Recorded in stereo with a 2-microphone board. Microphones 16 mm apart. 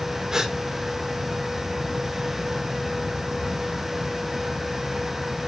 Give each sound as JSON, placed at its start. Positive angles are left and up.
{"t": 0.3, "sound": "a gasp", "side_deg": -40, "distance_m": 1.7}